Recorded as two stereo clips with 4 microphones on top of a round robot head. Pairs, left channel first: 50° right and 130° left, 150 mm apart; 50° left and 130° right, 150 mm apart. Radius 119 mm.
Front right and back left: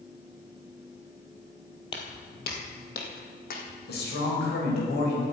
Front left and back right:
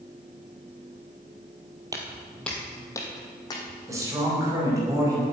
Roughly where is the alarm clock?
I don't hear an alarm clock.